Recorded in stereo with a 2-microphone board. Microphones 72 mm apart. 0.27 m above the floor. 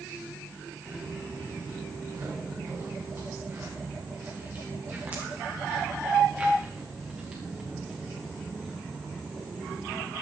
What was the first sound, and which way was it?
Footsteps, 45° right (ahead or behind).